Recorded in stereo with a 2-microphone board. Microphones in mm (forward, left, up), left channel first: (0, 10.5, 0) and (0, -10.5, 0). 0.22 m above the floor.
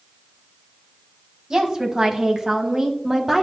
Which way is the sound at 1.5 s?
30° right (ahead or behind).